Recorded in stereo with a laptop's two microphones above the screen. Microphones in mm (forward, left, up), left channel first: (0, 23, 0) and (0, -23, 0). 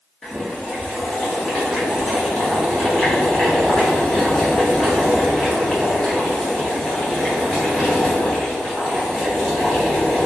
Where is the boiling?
5° left (ahead or behind), 1.1 m.